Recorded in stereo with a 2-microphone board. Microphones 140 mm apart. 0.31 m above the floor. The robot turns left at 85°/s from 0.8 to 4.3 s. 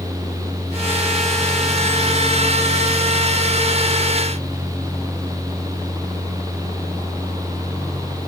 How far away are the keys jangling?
No keys jangling in this recording.